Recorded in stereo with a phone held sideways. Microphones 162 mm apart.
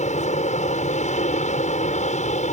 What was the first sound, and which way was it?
An aircraft, 45° left (ahead or behind).